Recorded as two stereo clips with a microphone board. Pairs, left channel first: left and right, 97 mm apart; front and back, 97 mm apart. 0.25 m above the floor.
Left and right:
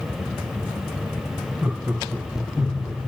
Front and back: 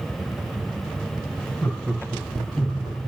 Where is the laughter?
25° right, 1.3 m; by 3.0 s straight behind, 1.8 m.